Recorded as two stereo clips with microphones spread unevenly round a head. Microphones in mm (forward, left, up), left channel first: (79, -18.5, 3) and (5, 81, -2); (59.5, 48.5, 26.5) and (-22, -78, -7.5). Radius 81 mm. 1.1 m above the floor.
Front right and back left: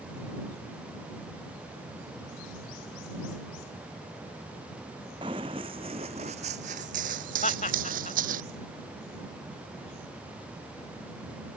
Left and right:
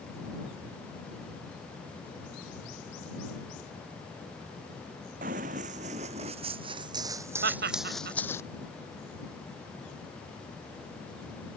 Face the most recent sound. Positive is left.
turn(degrees=-105)